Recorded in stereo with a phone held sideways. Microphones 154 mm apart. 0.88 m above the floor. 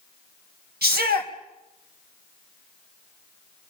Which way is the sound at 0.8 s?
85° right.